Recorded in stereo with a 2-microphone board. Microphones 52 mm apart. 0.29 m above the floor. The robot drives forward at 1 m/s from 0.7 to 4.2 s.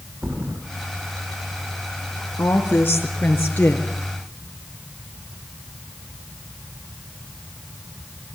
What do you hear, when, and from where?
0.2 s a thud: 50° right (ahead or behind), 7.5 m
2.4 s a woman speaking: 45° left (ahead or behind), 3 m; by 3.9 s 30° left (ahead or behind), 4 m